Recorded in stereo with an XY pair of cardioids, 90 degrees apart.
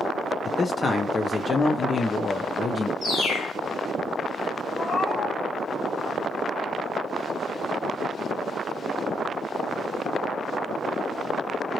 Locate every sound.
0.5 s a man speaking: 40° left, 0.7 m
3.0 s a bird: 55° left, 2.5 m
4.8 s a cat meowing: 50° left, 2 m